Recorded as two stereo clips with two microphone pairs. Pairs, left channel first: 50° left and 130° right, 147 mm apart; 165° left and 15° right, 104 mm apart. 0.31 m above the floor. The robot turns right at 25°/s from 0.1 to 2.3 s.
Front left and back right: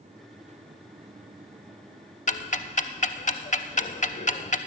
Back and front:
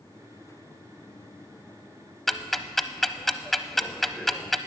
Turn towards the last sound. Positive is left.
turn(degrees=75)